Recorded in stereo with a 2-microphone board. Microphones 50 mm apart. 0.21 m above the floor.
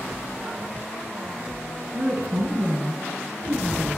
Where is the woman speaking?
60° right (ahead or behind), 2 m; by 4.0 s 40° right (ahead or behind), 3 m.